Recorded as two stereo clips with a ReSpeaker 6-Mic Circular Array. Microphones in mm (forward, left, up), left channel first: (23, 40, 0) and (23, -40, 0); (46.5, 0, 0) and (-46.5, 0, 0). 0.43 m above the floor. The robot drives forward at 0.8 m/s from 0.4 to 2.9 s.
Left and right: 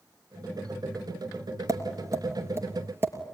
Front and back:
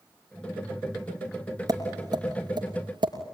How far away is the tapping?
About 2.5 m.